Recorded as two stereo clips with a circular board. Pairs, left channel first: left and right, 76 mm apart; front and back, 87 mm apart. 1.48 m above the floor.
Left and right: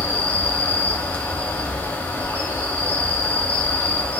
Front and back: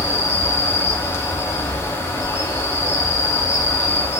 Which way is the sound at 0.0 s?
40° left.